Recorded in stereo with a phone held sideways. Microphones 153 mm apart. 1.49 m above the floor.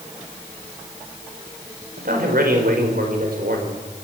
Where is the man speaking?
85° right, 5 m.